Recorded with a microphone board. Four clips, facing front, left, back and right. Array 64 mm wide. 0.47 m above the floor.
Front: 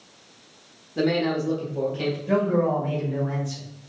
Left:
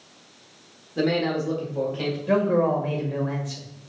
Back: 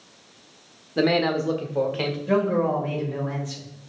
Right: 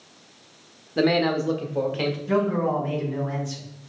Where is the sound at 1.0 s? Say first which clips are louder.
Right 2 dB, back 2 dB; 140° right, 0.8 m; by 2.2 s 155° right, 1.3 m.